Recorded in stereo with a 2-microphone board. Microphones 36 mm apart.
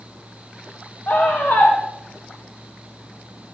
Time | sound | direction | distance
1.1 | a scream | 70° left (ahead or behind) | 3.5 m